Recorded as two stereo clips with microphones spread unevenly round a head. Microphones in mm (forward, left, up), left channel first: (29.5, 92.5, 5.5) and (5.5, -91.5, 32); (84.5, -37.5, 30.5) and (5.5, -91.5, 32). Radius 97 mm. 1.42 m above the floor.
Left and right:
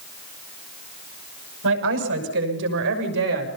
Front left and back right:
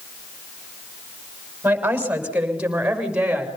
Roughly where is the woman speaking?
Right.